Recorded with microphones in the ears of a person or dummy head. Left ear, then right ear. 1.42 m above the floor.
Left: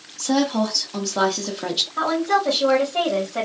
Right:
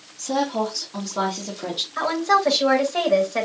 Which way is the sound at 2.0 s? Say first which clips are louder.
Right 2 dB; 70° right (ahead or behind).